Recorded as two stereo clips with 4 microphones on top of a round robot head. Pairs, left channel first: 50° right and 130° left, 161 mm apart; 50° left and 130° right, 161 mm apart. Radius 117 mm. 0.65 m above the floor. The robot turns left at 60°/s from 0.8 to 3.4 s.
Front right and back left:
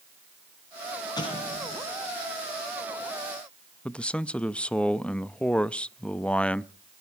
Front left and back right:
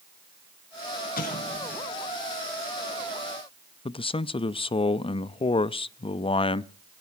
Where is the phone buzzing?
I don't hear a phone buzzing.